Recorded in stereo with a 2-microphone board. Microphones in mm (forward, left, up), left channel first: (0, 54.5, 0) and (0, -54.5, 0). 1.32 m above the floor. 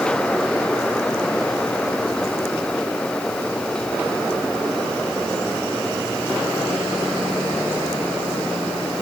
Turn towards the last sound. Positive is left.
No sound to turn to.